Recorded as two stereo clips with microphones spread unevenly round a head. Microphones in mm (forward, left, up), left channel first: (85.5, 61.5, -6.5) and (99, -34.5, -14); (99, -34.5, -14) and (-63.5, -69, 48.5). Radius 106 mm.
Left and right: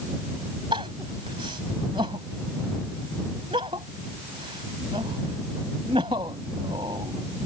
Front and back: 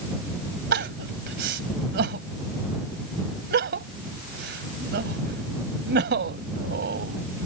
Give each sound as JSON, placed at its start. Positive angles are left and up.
{"t": 0.7, "sound": "crying", "azimuth_deg": -150}